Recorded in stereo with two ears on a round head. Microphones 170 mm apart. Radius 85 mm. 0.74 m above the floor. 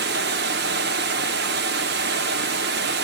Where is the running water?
55° right (ahead or behind), 0.7 m.